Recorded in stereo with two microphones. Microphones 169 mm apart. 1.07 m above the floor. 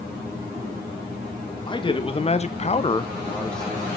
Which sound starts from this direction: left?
A man speaking, at 1.7 s.